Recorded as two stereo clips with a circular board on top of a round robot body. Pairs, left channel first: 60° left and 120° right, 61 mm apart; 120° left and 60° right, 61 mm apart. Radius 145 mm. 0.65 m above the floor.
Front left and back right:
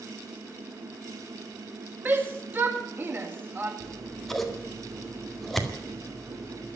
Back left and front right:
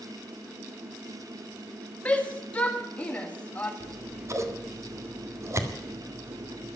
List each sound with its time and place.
2.0 s a shout: 175° right, 2 m
3.8 s scissors: 25° right, 2 m